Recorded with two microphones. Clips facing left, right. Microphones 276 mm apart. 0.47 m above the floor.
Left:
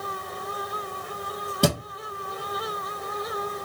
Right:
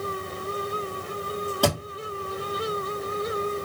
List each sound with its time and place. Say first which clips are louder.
1.6 s a thud: left 2 dB; 25° left (ahead or behind), 1.9 m